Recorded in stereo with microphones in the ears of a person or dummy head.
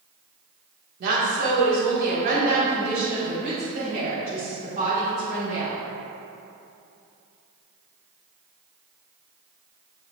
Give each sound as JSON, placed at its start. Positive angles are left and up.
{"t": 1.0, "sound": "a woman speaking", "side_deg": -55, "distance_m": 2.0}